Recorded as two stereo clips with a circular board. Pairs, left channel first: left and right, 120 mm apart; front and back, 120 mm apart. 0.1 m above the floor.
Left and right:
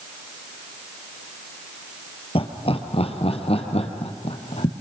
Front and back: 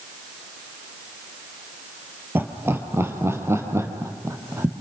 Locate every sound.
2.4 s laughter: 110° left, 2.5 m; by 4.7 s 115° left, 3.5 m